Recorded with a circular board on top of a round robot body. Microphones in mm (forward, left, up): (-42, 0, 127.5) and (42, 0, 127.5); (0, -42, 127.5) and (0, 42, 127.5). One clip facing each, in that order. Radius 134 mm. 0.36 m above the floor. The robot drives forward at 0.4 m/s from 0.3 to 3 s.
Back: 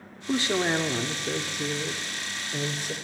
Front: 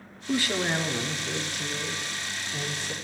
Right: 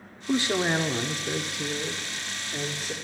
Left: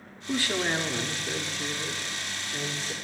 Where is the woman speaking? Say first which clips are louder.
Back 2 dB, right 3 dB; 135° right, 1.1 m; by 3.0 s 165° right, 1.7 m.